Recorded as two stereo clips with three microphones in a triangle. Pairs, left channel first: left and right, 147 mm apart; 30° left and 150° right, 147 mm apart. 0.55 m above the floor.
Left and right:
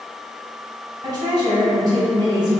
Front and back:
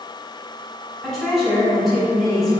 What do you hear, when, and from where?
1.0 s a woman speaking: 60° right, 1.4 m